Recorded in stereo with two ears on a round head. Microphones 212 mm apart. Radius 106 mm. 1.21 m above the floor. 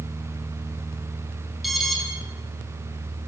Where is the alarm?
Centre (ahead or behind), 9 m.